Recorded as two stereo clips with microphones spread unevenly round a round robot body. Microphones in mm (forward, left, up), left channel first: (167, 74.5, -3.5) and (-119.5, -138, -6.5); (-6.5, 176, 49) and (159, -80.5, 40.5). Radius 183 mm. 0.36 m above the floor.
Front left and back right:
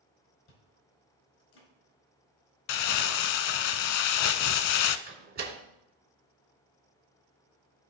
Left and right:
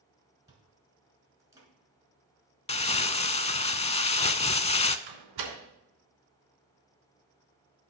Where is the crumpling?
50° left, 0.6 m.